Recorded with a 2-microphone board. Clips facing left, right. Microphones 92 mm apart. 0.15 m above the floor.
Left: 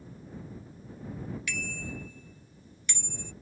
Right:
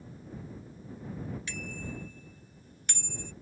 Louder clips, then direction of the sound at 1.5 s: Left 2 dB; 35° right (ahead or behind).